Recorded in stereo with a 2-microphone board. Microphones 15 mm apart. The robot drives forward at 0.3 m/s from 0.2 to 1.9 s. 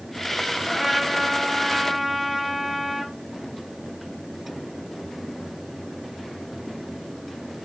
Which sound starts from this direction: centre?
A trumpet, at 0.6 s.